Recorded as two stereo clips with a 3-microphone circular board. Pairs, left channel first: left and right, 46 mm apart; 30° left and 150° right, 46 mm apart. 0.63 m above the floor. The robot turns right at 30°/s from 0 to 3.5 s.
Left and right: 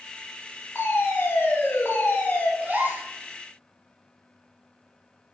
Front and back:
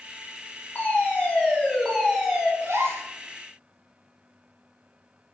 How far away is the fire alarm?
About 3.5 m.